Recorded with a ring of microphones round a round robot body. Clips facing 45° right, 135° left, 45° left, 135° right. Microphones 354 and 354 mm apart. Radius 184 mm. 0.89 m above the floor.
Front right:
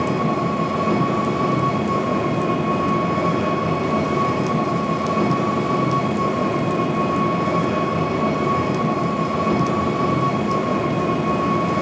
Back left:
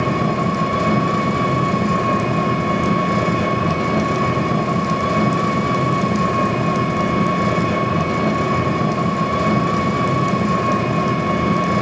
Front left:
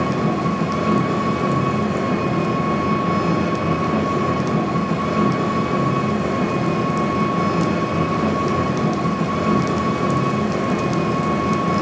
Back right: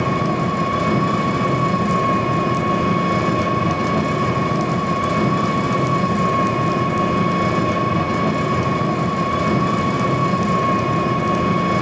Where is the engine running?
175° right, 3 m.